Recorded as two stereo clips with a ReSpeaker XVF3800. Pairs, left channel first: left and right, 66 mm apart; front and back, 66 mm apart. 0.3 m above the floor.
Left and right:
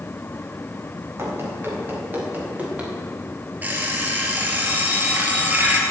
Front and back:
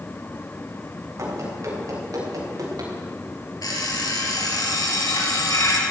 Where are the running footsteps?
140° right, 5.5 m; by 2.9 s 165° right, 4.5 m.